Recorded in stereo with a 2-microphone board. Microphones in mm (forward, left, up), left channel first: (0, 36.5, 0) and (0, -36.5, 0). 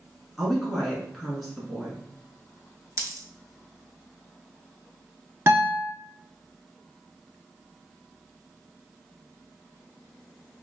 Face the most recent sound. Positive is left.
turn(degrees=-35)  # may be behind; listen again after turning